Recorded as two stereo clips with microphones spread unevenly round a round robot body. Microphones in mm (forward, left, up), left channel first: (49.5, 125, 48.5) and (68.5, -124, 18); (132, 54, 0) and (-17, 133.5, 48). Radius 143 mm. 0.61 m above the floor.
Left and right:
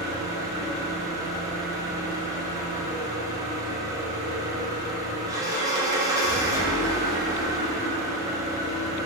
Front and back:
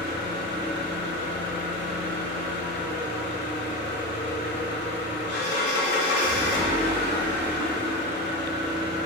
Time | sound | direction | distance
0.0 | an engine running | 5° right | 0.9 m